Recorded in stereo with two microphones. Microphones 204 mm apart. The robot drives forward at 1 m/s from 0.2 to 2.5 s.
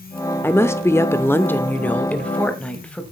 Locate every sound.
0.4 s a woman speaking: 10° left (ahead or behind), 0.8 m; by 3.0 s 5° left (ahead or behind), 1.8 m